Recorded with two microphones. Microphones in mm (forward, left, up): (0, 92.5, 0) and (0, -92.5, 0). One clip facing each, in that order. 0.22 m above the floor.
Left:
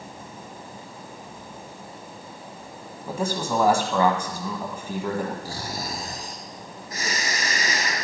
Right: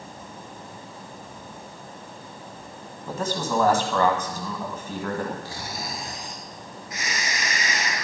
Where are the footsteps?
No footsteps in this recording.